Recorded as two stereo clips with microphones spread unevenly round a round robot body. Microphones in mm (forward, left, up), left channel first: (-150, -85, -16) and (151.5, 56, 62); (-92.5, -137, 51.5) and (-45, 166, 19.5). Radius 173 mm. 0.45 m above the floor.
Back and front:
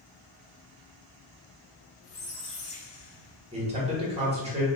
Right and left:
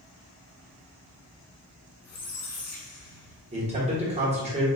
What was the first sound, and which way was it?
A squeak, 140° right.